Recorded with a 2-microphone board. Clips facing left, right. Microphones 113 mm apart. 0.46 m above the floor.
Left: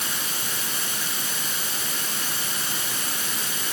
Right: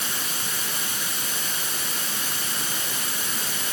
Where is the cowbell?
I don't hear a cowbell.